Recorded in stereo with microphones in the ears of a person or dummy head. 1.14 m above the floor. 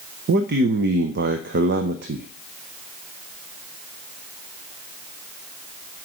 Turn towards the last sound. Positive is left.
turn(degrees=-55)  # may be behind; listen again after turning